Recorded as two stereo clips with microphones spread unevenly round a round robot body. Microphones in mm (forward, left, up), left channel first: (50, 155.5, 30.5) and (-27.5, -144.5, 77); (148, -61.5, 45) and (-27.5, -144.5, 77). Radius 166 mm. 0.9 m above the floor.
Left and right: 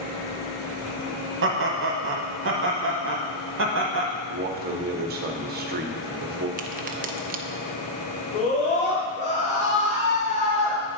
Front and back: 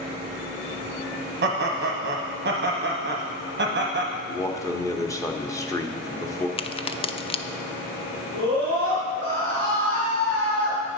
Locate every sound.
1.4 s laughter: 150° right, 0.8 m
4.3 s a man speaking: 40° right, 1.0 m
6.6 s a crack: 35° right, 0.5 m
8.3 s a scream: 145° left, 2.0 m